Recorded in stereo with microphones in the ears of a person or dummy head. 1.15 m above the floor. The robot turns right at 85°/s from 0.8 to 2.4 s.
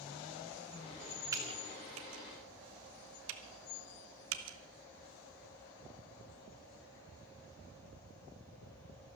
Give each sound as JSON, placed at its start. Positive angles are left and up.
{"t": 1.3, "sound": "typing on a keyboard", "side_deg": -15, "distance_m": 1.5}